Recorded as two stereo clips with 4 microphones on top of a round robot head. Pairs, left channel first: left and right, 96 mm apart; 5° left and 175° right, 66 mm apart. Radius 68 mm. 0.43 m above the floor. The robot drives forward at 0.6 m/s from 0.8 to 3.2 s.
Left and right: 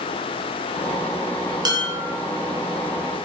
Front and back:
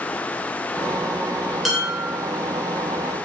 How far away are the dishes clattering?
About 0.8 m.